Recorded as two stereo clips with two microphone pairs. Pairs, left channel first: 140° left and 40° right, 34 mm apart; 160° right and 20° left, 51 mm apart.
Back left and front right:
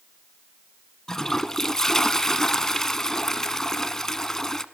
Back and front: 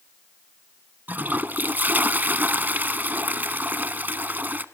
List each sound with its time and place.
1.1 s a toilet flushing: 65° left, 0.9 m